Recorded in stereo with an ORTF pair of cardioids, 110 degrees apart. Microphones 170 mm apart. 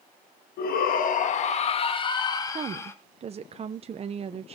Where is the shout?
70° left, 1.5 m; by 2.9 s 15° left, 2 m.